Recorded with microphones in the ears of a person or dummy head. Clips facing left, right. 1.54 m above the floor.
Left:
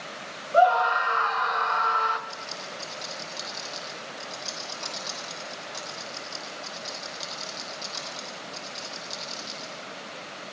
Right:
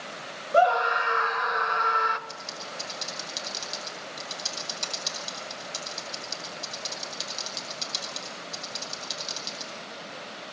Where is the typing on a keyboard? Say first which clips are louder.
Left 1 dB; 45° right (ahead or behind), 8.5 m.